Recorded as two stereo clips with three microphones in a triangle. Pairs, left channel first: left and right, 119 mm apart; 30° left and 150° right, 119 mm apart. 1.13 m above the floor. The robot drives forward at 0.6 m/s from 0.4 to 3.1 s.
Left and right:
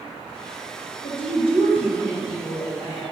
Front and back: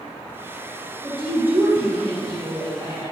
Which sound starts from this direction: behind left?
A woman speaking, at 1.0 s.